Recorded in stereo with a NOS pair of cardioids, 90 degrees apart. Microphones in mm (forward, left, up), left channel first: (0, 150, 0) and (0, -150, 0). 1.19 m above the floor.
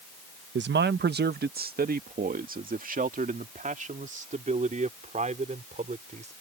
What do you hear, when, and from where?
0.6 s a man speaking: 40° right; by 6.3 s 25° right